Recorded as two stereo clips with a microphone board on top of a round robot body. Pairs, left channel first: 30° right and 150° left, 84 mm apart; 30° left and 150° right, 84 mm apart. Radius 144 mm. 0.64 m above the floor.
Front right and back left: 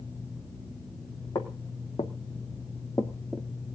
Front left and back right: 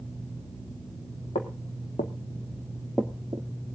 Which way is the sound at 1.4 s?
20° left.